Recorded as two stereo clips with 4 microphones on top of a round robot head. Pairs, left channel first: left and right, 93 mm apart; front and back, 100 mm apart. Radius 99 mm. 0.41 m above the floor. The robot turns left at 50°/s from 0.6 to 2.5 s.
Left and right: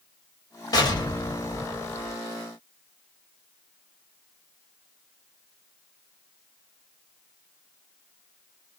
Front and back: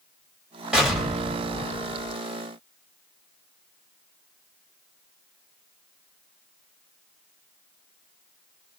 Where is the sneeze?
I don't hear a sneeze.